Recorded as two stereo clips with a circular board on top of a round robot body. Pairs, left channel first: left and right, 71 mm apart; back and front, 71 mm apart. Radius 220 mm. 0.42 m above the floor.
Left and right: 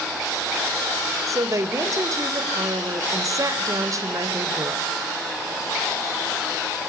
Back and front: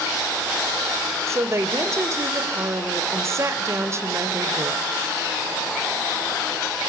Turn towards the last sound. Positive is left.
turn(degrees=-50)